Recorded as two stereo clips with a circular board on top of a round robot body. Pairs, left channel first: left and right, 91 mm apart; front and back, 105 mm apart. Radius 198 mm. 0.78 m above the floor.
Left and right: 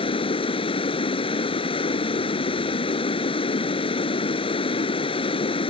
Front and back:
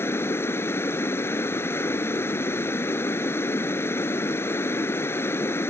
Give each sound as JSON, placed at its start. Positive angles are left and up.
{"t": 0.0, "sound": "running water", "azimuth_deg": 70}